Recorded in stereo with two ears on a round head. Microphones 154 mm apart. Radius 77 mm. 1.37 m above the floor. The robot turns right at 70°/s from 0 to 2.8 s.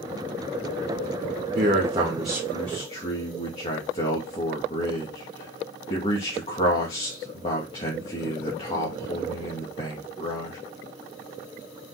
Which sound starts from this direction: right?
A man speaking, at 1.6 s.